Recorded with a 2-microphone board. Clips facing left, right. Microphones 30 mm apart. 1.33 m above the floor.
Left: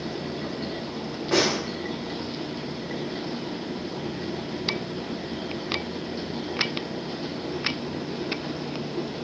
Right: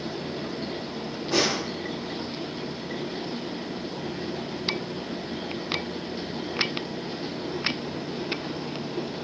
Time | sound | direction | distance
1.3 | a snare drum | 70° left (ahead or behind) | 0.7 m